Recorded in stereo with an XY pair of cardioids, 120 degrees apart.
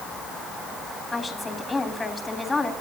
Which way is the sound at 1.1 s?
20° left.